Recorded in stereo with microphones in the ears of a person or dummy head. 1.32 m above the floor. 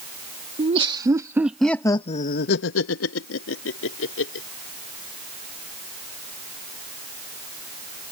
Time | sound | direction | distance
0.6 | laughter | 30° right (ahead or behind) | ?